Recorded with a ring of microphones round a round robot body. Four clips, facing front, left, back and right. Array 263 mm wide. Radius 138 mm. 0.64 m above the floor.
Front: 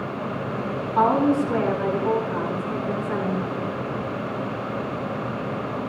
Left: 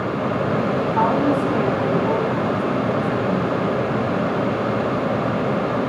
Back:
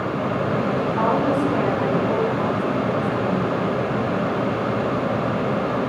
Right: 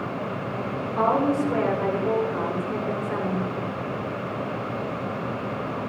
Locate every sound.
0.9 s a woman speaking: 50° left, 7 m